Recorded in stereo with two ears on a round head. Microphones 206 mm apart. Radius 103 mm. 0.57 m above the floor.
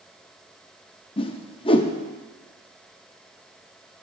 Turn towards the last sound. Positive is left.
turn(degrees=25)  # may be behind; listen again after turning